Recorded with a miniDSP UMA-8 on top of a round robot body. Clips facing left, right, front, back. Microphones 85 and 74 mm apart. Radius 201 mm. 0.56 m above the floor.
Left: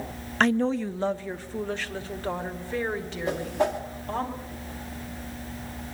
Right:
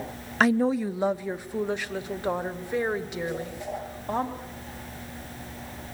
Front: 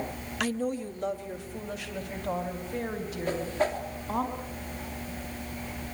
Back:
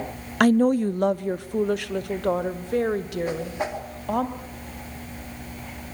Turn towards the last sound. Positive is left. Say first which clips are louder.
# left 6 dB, even
turn(degrees=105)